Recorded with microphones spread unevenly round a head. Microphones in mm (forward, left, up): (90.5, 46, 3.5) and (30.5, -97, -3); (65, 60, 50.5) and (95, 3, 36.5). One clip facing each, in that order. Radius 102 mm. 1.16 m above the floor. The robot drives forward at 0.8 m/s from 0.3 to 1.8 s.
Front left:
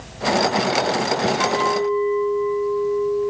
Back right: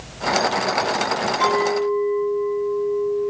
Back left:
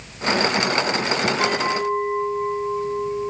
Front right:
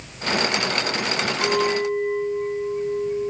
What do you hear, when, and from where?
1.4 s a clink: 170° left, 1.1 m; by 3.3 s 175° left, 1.4 m